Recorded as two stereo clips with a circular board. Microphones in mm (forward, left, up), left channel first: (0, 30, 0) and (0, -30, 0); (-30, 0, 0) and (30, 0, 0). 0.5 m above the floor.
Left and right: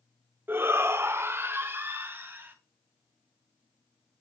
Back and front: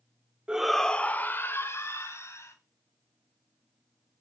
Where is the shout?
65° right, 0.8 m; by 2.5 s 145° right, 3 m.